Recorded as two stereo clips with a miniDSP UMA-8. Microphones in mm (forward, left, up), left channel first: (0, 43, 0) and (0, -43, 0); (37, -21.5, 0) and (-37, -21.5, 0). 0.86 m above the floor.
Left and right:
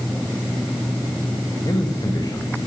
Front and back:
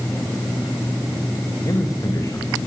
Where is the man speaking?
45° left, 4.5 m.